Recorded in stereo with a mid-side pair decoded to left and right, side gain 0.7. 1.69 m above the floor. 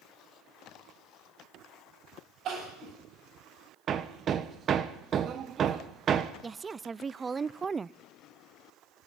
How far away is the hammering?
About 1.2 m.